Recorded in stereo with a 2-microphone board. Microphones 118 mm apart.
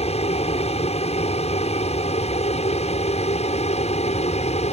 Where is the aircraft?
60° left (ahead or behind); by 4.8 s 65° left (ahead or behind).